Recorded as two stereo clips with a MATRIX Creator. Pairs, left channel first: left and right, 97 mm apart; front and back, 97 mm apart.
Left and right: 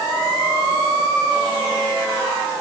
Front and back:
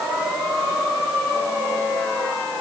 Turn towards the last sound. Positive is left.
No sound to turn to.